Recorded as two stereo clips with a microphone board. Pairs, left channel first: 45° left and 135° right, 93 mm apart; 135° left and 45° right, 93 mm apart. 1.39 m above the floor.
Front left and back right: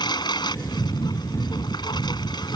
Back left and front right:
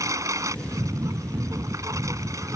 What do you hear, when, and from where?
0.0 s a lawn mower: 10° left